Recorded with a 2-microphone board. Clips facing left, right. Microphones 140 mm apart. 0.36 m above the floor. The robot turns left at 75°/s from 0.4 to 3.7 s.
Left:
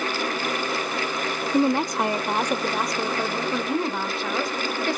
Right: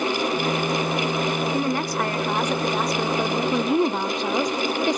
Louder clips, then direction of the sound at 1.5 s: Left 3 dB; 20° left (ahead or behind).